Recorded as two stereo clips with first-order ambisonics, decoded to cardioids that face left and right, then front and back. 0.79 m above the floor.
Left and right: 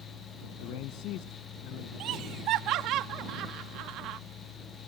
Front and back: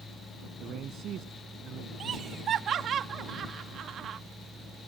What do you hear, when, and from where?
0.6 s a man speaking: 125° left
2.0 s laughter: 125° right